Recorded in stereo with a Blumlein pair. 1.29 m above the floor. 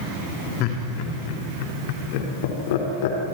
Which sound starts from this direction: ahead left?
Laughter, at 0.6 s.